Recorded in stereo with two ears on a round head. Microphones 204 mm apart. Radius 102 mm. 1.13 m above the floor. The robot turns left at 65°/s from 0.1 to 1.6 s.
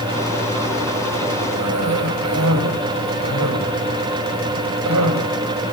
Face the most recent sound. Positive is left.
turn(degrees=-80)